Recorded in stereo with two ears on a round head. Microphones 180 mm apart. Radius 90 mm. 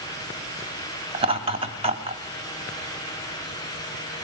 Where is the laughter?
30° right (ahead or behind), 3 m.